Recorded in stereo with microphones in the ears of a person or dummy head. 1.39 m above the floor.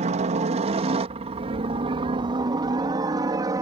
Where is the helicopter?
40° right (ahead or behind); by 3.6 s 20° right (ahead or behind).